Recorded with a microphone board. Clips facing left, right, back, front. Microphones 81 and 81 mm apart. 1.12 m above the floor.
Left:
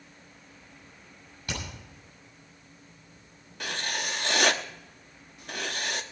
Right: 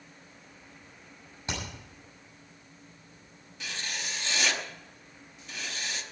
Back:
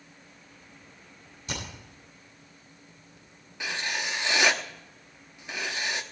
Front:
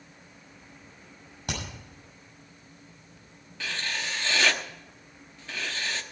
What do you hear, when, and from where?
1.5 s hammering: 25° right, 6.5 m
3.6 s writing: 110° left, 0.8 m